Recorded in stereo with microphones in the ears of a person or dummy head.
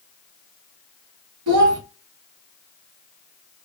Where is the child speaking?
80° right, 0.9 m.